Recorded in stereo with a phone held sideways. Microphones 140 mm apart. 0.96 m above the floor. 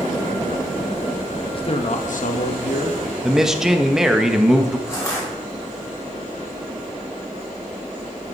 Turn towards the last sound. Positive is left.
turn(degrees=20)  # may be behind; listen again after turning